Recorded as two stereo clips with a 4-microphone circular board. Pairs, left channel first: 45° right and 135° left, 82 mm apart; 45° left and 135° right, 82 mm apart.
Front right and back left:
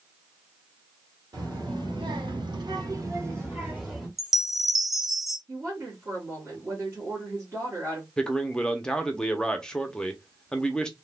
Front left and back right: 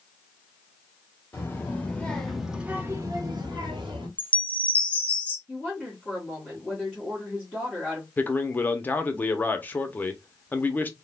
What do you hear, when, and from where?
1.3 s a child speaking: 105° left, 1.6 m; by 4.1 s 145° right, 1.4 m
4.2 s a chime: 55° left, 0.6 m
5.5 s a woman speaking: 120° left, 1.4 m
8.2 s a man speaking: 25° left, 0.6 m